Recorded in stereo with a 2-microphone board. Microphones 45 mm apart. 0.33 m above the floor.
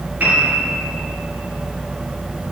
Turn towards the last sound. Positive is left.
turn(degrees=-40)  # may be behind; listen again after turning